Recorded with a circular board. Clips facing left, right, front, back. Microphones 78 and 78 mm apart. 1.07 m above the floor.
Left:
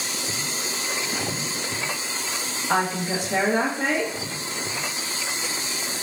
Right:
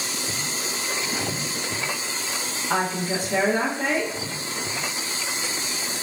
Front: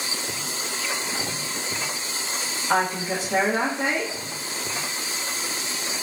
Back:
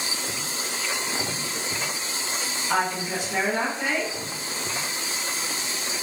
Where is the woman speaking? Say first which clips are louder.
Left 1 dB, front 2 dB; 60° left, 1.0 m.